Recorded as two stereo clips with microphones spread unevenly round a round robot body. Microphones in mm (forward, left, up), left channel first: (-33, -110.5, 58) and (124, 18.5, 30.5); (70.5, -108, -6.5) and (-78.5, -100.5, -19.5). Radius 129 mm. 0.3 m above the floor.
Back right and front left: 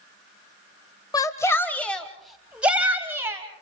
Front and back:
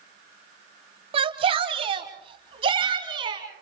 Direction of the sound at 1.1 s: 145° left.